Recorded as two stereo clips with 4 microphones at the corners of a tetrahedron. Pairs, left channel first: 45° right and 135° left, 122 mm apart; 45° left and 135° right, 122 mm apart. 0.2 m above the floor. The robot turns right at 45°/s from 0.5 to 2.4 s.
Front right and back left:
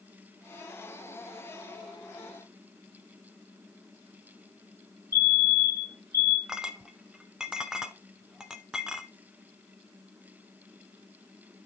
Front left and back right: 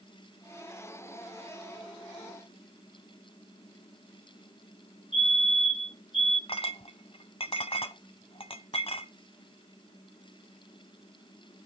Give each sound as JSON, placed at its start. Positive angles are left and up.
{"t": 5.1, "sound": "a fire alarm", "azimuth_deg": -115, "distance_m": 7.0}
{"t": 6.5, "sound": "a clink", "azimuth_deg": 50, "distance_m": 1.1}